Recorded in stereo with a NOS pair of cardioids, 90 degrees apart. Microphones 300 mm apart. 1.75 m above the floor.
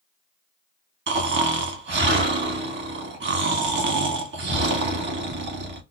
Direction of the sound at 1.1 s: 35° right.